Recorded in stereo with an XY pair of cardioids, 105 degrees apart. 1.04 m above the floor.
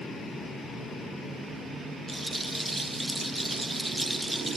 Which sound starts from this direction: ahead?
A rattle, at 2.1 s.